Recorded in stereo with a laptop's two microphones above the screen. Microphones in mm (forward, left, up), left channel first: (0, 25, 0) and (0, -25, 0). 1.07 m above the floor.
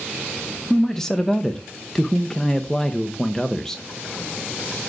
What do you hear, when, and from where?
0.7 s a man speaking: 10° left (ahead or behind), 0.8 m